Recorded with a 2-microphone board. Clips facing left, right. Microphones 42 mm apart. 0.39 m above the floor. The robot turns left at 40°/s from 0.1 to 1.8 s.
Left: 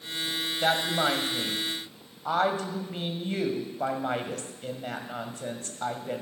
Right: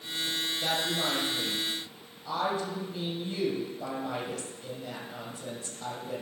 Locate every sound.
0.6 s a woman speaking: 115° left, 2.0 m; by 6.2 s 65° left, 2.0 m